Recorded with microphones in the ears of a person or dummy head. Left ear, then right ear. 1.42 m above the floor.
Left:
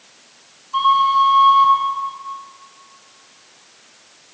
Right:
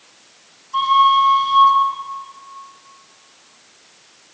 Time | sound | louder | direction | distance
0.7 | a flute | right 1 dB | 10° left (ahead or behind) | 7.5 m